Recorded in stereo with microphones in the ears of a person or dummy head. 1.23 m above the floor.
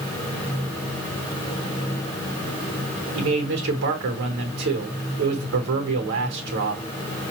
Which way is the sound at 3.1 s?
70° right (ahead or behind).